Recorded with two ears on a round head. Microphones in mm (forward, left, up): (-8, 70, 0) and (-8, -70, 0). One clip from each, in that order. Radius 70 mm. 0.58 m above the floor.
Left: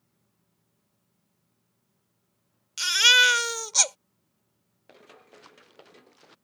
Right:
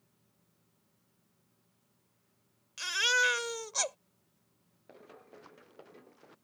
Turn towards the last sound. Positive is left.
turn(degrees=60)  # may be behind; listen again after turning